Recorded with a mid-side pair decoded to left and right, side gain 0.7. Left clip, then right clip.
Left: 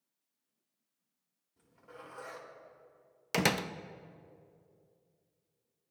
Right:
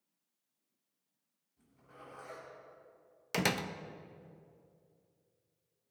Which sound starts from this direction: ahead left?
A zipper, at 1.6 s.